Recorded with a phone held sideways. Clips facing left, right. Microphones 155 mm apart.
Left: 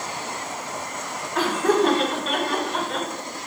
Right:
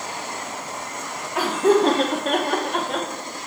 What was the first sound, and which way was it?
Laughter, 10° right (ahead or behind).